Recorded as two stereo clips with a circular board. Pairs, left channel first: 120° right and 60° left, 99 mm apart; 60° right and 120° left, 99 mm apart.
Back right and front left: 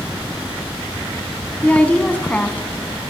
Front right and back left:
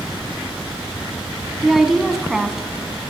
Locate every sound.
1.6 s a woman speaking: 160° right, 1.1 m